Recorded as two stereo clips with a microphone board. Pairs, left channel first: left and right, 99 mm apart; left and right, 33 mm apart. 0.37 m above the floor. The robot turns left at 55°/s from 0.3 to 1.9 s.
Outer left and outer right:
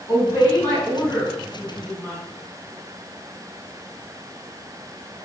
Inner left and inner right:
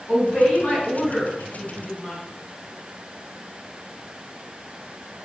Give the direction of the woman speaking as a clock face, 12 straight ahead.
9 o'clock.